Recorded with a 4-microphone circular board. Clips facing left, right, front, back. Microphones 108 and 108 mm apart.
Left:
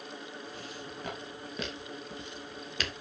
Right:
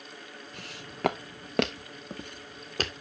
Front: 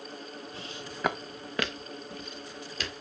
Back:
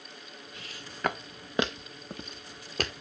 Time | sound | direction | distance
0.5 | footsteps | 60° right | 0.9 m